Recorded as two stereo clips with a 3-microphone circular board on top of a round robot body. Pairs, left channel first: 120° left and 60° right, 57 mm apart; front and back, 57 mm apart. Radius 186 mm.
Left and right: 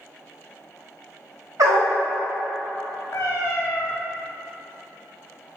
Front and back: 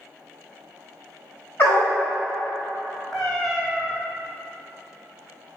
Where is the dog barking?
55° right, 0.6 m.